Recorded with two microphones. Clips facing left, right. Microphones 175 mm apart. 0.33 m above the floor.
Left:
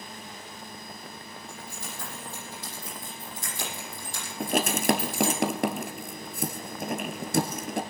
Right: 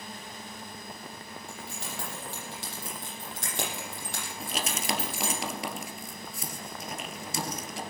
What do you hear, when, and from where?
1.5 s keys jangling: 80° right, 8 m; by 5.4 s 65° right (ahead or behind), 8.5 m
4.4 s writing: 60° left (ahead or behind), 1.4 m